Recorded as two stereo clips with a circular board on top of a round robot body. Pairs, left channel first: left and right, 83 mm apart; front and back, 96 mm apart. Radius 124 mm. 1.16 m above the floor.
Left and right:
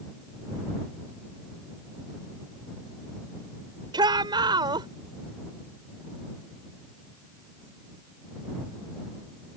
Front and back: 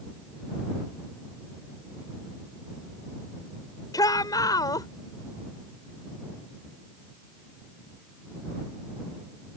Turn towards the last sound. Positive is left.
turn(degrees=-55)